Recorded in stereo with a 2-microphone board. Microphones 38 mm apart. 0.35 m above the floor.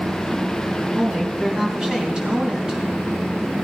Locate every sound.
0.9 s a woman speaking: 25° right (ahead or behind), 4.5 m